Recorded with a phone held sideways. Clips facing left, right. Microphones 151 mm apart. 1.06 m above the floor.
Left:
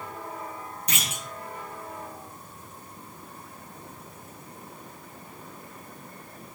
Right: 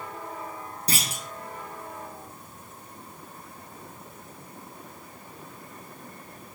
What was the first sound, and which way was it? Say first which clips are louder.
A clunk: right 4 dB; 35° right (ahead or behind).